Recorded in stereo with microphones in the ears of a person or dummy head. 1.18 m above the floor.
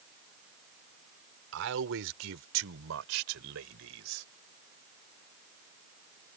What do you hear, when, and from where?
1.5 s a man speaking: 70° right (ahead or behind); by 4.2 s 85° right